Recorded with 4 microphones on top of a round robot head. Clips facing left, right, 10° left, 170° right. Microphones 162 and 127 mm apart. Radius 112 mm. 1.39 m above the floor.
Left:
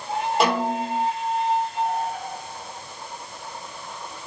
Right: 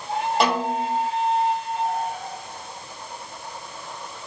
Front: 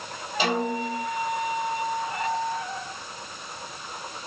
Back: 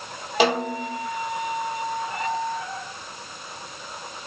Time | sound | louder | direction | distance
0.4 | a snare drum | left 1 dB, back 4 dB | straight behind | 2.5 m